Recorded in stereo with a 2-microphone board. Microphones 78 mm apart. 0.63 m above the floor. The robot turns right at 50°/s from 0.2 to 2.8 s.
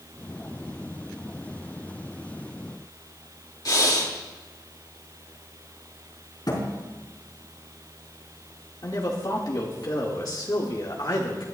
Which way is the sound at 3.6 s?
55° left (ahead or behind).